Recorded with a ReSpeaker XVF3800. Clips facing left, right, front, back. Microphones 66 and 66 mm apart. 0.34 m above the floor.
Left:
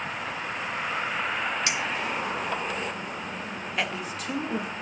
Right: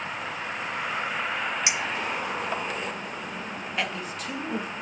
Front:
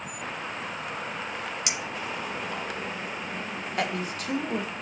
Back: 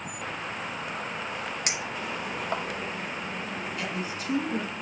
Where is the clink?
155° right, 1.2 m.